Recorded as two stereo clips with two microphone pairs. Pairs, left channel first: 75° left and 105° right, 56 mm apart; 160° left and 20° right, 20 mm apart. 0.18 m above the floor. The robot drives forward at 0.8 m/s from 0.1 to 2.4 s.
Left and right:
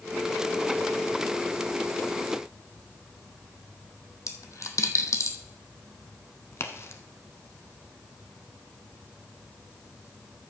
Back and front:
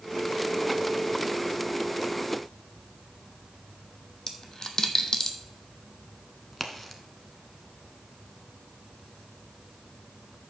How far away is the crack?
About 1.0 m.